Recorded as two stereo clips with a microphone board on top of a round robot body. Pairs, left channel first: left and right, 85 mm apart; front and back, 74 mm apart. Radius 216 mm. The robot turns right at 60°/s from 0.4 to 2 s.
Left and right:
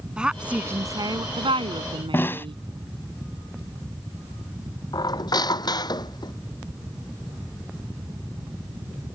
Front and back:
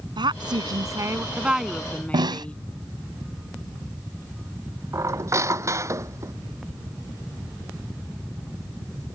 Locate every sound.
0.2 s a woman speaking: 170° right; by 2.6 s 75° right
2.1 s a snare drum: 155° left
4.9 s a squeak: 130° left